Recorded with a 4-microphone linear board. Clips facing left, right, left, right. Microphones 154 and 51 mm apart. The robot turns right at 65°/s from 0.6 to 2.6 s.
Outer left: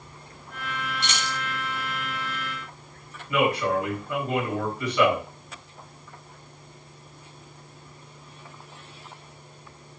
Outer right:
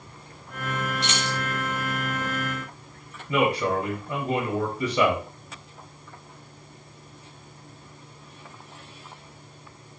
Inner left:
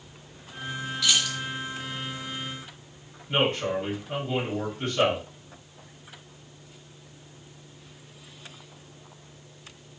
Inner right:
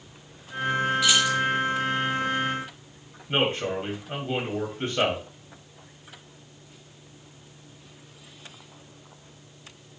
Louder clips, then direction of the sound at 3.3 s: Even, even; 20° right (ahead or behind).